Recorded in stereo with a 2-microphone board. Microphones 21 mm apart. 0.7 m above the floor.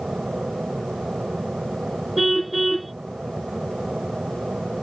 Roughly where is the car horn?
Centre.